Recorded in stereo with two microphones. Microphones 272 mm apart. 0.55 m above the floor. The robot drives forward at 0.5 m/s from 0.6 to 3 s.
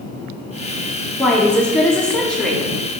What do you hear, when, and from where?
1.2 s a woman speaking: 5° left (ahead or behind), 0.6 m; by 2.7 s centre (ahead or behind), 0.8 m